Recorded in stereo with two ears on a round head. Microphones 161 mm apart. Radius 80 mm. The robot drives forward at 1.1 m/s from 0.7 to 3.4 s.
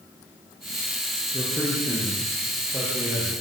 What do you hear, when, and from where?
1.3 s a man speaking: 10° right (ahead or behind), 9 m